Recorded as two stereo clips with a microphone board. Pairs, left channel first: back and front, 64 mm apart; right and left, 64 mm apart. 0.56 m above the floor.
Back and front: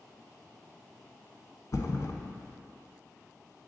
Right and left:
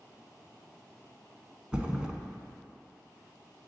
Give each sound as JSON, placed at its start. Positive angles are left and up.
{"t": 1.7, "sound": "a thud", "azimuth_deg": 165, "distance_m": 0.8}